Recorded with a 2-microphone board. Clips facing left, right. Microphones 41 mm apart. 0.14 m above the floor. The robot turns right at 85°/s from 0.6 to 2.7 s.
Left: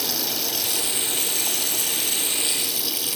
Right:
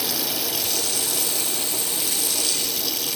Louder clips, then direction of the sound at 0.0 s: Right 1 dB; 5° right.